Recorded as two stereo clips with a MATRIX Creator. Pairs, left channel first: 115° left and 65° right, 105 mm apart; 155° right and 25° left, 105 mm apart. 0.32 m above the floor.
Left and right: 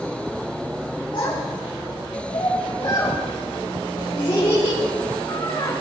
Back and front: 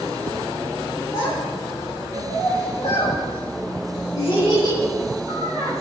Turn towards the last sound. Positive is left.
turn(degrees=170)